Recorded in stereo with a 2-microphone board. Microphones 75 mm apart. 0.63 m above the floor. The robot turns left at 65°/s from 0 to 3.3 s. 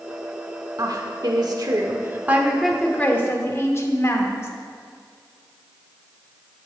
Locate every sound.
0.8 s a woman speaking: 60° right, 1.3 m; by 4.5 s 140° left, 1.3 m